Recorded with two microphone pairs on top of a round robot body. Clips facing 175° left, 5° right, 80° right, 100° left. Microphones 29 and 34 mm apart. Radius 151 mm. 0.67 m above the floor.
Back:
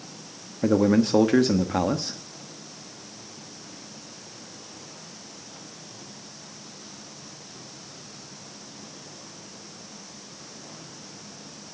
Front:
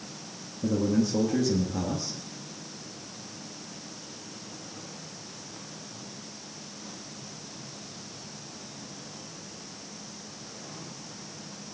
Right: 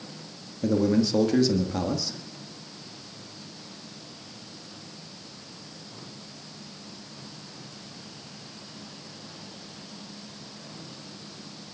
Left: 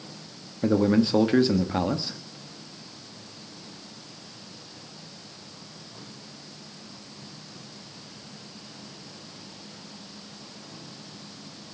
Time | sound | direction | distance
0.6 | a man speaking | 155° left | 1.5 m